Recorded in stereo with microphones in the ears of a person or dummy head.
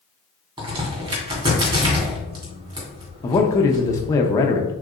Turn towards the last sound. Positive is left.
turn(degrees=15)  # may be behind; listen again after turning